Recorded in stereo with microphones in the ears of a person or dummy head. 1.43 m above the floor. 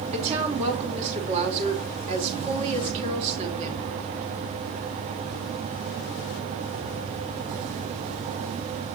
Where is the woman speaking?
40° right (ahead or behind), 2.5 m.